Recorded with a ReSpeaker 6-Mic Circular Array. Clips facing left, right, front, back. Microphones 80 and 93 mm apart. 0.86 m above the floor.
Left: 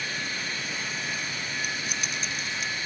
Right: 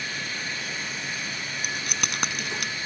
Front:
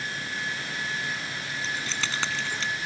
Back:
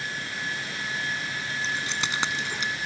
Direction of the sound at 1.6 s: 110° right.